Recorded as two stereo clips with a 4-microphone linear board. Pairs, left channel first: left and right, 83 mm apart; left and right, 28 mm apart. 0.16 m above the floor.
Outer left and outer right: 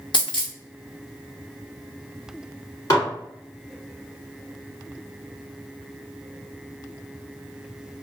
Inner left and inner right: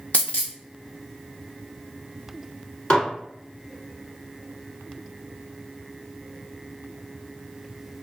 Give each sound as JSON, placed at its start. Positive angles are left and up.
{"t": 0.1, "sound": "a dropped coin", "side_deg": 70, "distance_m": 1.2}
{"t": 2.9, "sound": "dishes clattering", "side_deg": 45, "distance_m": 1.4}